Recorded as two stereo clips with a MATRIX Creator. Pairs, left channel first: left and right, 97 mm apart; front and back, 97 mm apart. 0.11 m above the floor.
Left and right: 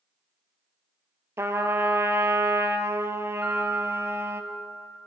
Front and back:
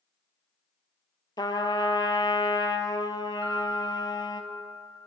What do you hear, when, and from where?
1.4 s a trumpet: 30° right, 0.6 m
3.4 s a piano: 170° right, 3 m